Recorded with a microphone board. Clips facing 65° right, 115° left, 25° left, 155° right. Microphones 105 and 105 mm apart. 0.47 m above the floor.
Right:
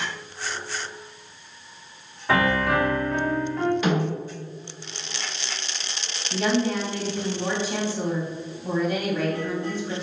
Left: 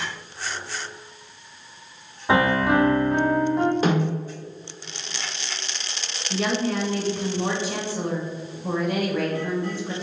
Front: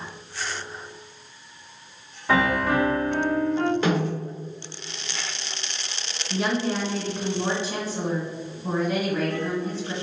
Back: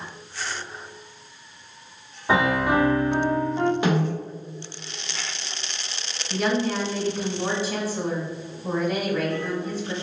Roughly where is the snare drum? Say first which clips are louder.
Left 2 dB, back 1 dB; behind left.